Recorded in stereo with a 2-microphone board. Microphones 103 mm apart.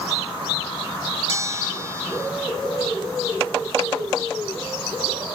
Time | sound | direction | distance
1.3 | a bell | 30° right (ahead or behind) | ?